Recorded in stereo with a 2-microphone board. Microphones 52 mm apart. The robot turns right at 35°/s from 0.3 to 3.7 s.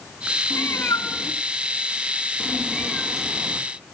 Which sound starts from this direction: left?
A cat meowing, at 0.5 s.